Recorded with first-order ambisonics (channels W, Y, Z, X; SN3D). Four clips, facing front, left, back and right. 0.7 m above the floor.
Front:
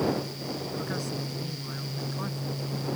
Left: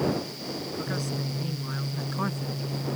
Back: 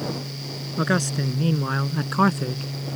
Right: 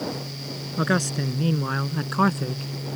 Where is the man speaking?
135° right; by 2.6 s 150° right.